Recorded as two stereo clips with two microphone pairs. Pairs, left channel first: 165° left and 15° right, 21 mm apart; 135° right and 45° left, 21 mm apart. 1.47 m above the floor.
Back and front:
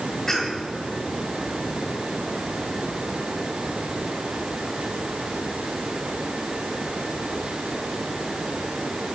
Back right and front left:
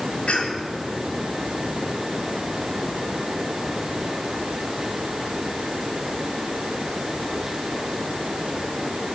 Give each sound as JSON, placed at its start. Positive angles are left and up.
{"t": 0.3, "sound": "a cough", "azimuth_deg": -125, "distance_m": 4.5}